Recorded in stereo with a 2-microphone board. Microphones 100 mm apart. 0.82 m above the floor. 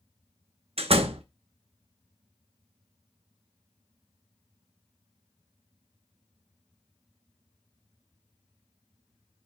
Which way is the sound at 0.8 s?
80° right.